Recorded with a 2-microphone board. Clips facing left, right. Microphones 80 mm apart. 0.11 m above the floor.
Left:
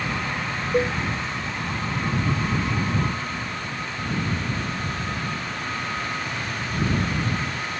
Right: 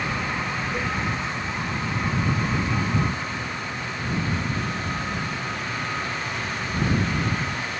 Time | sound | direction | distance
0.7 | a cowbell | 55° left (ahead or behind) | ?